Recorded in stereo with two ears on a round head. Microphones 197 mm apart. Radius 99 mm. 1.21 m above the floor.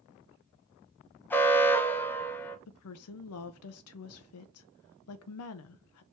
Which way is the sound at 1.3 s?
10° left (ahead or behind).